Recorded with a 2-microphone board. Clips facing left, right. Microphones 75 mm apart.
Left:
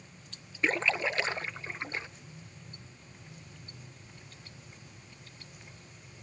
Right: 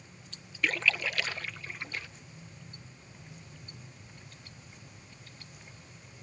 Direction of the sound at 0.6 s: 30° left (ahead or behind).